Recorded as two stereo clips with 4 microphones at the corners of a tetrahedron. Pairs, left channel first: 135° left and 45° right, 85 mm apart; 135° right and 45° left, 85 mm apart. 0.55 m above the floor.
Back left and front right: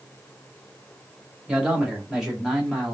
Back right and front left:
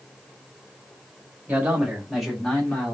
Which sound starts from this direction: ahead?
A man speaking, at 1.5 s.